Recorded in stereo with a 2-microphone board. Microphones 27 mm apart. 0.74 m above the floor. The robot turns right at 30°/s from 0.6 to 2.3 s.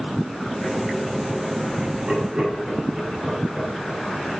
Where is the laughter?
50° right (ahead or behind), 4.5 m; by 4.4 s 35° right (ahead or behind), 4.5 m.